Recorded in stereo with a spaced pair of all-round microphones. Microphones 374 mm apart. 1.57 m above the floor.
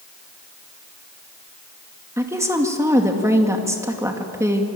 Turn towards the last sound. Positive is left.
turn(degrees=-10)  # may be behind; listen again after turning